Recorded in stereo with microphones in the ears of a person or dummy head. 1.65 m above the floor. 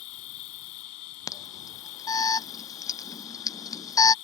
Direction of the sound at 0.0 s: 55° left (ahead or behind).